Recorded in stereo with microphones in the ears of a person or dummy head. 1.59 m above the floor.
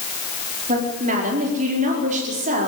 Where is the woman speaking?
45° right (ahead or behind), 4.5 m.